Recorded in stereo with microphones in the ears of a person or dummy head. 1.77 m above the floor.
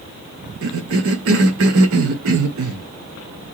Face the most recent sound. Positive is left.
turn(degrees=-80)